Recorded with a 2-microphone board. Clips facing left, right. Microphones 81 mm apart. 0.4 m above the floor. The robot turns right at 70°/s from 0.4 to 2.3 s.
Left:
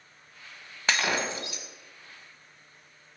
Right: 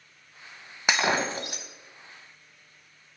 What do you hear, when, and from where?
0.9 s breaking glass: 165° right, 0.9 m; by 1.7 s 110° right, 0.9 m